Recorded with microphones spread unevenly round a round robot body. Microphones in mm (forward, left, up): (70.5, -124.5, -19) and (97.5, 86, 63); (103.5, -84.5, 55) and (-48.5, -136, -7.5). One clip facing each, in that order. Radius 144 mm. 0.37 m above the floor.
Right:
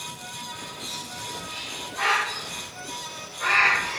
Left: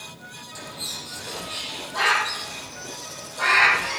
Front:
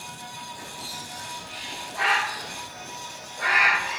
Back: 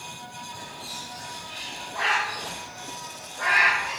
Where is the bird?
90° left, 5.5 m.